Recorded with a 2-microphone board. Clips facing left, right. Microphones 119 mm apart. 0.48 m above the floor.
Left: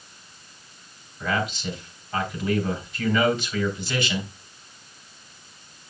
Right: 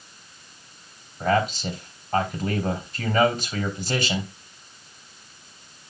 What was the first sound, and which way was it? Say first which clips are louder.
A man speaking: right 5 dB; 40° right (ahead or behind).